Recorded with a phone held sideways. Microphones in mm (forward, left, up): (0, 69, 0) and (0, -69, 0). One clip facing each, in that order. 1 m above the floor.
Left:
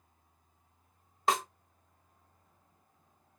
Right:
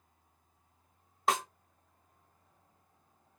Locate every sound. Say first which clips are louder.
1.3 s a snare drum: left 1 dB; centre (ahead or behind), 0.7 m